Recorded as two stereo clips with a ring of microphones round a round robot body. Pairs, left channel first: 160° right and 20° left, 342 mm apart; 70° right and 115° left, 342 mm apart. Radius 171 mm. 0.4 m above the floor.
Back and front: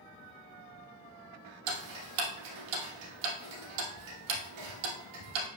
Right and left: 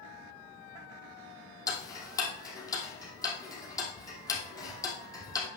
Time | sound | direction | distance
1.7 | ticking | 15° left | 2.5 m